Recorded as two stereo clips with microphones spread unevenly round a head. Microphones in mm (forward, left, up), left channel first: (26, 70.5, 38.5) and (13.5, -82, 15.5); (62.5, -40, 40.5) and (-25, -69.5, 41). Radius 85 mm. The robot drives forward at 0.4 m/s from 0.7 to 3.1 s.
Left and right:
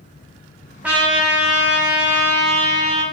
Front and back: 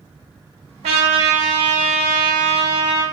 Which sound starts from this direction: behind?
A trumpet, at 0.8 s.